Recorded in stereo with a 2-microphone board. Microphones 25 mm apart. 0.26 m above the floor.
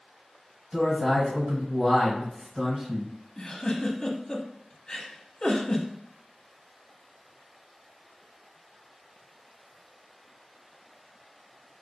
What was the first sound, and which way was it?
A man speaking, 25° right (ahead or behind).